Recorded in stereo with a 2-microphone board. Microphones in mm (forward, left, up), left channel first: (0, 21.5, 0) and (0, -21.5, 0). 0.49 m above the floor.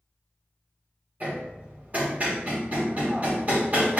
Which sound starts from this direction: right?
Hammering, at 1.2 s.